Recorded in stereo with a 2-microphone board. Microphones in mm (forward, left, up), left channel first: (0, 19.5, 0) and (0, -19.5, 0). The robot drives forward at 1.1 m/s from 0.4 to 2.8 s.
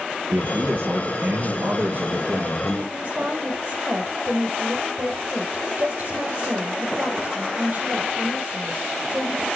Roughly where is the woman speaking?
Right.